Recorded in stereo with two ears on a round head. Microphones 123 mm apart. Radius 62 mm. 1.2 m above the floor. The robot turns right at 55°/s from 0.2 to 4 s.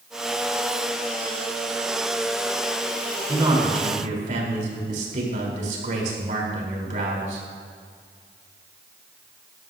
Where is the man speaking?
155° right, 4 m; by 7.4 s 115° right, 4 m.